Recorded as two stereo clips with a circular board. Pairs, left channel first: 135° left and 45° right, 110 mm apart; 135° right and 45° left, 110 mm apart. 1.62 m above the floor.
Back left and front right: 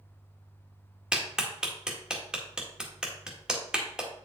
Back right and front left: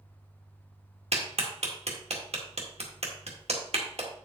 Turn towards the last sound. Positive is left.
turn(degrees=40)